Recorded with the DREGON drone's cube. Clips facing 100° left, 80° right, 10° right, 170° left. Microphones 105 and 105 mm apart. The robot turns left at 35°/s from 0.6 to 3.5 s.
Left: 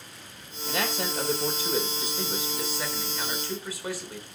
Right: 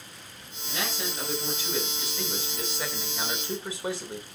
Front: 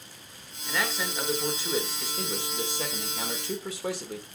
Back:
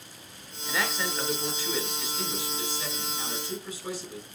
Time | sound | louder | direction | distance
0.7 | a man speaking | left 4 dB, even | 85° left | 3 m